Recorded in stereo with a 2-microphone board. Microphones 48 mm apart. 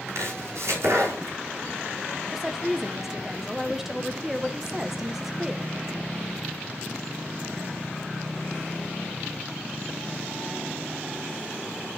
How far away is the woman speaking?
About 1.1 m.